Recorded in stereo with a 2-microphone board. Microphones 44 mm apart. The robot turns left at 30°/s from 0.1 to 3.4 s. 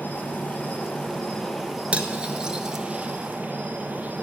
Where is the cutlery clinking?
25° right (ahead or behind), 0.9 m; by 2.8 s 10° right (ahead or behind), 0.9 m.